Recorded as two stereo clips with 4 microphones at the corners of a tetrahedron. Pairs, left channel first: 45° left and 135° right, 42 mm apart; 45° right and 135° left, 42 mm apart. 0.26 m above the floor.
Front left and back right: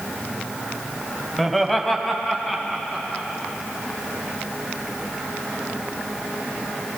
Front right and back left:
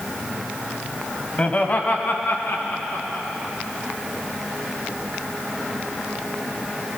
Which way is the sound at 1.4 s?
40° right.